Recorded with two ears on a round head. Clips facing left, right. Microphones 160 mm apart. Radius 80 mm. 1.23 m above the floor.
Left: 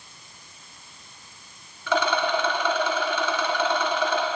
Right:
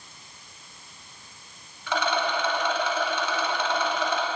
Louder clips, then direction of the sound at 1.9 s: Left 3 dB; 75° left (ahead or behind).